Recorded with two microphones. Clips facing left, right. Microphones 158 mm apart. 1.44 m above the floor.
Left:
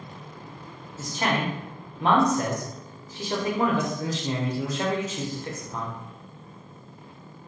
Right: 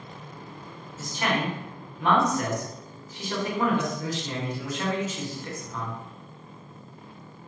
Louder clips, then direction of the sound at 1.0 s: Left 1 dB; 30° left (ahead or behind).